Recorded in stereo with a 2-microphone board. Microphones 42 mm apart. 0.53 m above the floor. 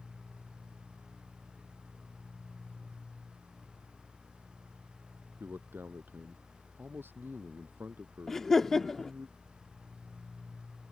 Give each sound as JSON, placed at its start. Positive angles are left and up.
{"t": 5.4, "sound": "a man speaking", "side_deg": -60}
{"t": 8.3, "sound": "laughter", "side_deg": 10}